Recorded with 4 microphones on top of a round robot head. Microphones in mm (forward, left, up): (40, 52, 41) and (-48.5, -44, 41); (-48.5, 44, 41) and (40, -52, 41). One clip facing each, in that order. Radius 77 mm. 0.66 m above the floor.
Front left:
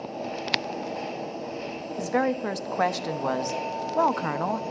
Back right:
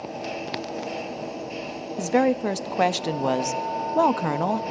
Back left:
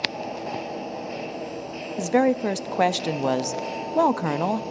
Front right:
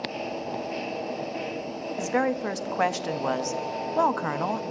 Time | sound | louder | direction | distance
2.0 | a woman speaking | back right 4 dB, back left 6 dB | 175° left | 0.6 m